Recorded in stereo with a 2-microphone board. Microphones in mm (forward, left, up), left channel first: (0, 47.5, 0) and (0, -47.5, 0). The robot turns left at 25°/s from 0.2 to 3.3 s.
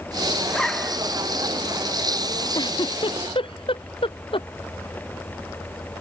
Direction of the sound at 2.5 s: 50° left (ahead or behind).